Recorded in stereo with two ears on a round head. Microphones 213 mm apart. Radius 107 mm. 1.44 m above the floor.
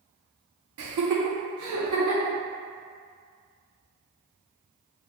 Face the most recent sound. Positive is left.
turn(degrees=-60)  # may be behind; listen again after turning